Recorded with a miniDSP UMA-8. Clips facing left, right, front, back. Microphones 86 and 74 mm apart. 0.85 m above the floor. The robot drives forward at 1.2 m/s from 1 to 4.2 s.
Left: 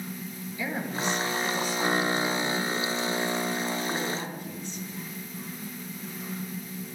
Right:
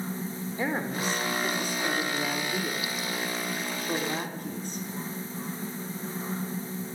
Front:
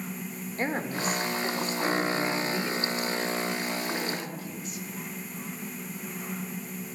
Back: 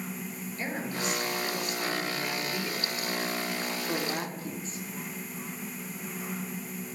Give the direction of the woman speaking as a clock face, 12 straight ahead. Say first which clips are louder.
Right 1 dB, front 4 dB; 1 o'clock.